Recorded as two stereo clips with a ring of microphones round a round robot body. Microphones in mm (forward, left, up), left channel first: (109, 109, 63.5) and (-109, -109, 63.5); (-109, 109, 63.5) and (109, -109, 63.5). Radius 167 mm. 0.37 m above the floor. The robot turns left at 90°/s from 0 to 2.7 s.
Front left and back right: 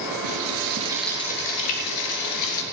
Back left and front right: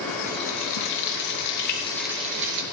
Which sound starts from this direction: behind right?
Frying, at 0.2 s.